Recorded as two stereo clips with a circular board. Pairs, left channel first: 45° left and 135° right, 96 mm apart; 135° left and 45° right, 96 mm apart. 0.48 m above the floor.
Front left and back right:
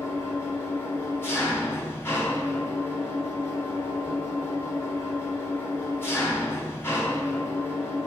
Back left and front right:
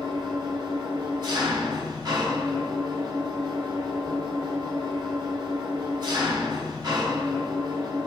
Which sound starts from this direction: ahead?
An engine running, at 0.0 s.